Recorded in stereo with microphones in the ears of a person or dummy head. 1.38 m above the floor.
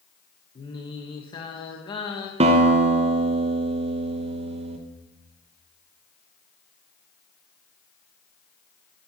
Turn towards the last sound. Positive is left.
turn(degrees=-30)  # may be behind; listen again after turning